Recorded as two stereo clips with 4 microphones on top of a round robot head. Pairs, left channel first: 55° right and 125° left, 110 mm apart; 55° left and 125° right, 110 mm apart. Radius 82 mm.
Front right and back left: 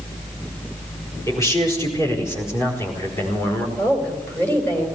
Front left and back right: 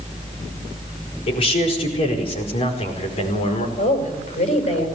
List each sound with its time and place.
1.3 s a man speaking: 10° left, 5.5 m; by 3.7 s 20° left, 4 m
3.8 s a woman speaking: 20° left, 5 m